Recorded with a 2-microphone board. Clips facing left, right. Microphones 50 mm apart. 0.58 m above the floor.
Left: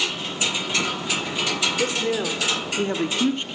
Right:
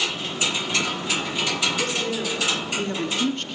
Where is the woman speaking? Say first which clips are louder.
Left 2 dB; 30° left (ahead or behind), 1.9 m; by 3.5 s 15° left (ahead or behind), 0.9 m.